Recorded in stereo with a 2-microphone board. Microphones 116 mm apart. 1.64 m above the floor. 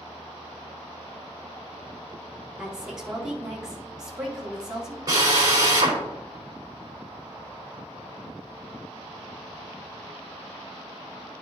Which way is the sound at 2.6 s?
5° right (ahead or behind).